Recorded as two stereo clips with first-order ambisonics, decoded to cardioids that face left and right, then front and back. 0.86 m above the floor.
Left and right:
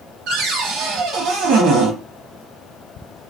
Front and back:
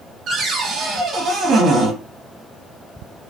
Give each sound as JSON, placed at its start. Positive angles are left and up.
{"t": 0.3, "sound": "a cupboard door", "azimuth_deg": -125, "distance_m": 0.9}